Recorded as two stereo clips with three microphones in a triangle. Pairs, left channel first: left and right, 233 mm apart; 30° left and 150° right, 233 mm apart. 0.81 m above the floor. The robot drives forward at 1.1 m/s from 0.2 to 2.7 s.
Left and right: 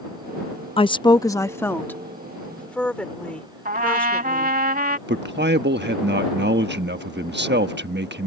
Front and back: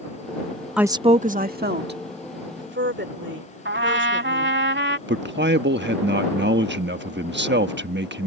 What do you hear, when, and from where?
0.8 s a woman speaking: 125° left; by 4.6 s 175° left
3.6 s a trumpet: 135° right
5.1 s a man speaking: 120° right